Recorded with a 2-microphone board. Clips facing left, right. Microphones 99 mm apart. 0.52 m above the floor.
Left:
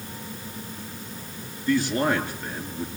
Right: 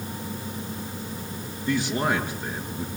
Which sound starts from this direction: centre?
A man speaking, at 1.7 s.